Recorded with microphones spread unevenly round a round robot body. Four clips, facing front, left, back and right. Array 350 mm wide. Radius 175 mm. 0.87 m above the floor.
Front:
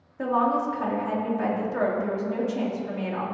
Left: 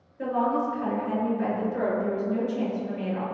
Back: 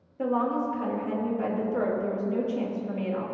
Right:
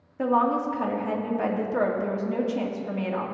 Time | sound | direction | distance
0.2 | a woman speaking | 60° right | 2 m